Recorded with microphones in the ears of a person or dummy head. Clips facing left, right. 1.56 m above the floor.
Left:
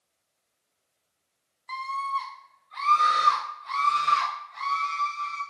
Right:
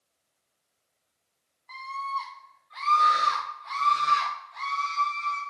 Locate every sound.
1.7 s a scream: 65° left (ahead or behind), 0.6 m; by 5.4 s 35° right (ahead or behind), 2.5 m